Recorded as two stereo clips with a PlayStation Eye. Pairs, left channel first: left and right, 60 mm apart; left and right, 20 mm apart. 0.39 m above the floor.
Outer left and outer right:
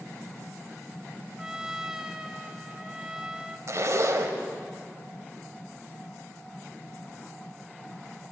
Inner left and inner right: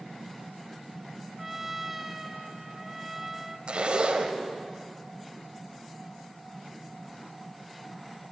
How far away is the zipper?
About 1.2 m.